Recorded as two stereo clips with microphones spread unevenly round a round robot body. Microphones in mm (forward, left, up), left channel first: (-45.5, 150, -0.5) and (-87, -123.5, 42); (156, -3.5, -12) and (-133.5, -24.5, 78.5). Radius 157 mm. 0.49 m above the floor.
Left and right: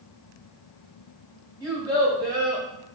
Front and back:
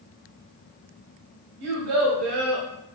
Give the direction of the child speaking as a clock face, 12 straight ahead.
6 o'clock.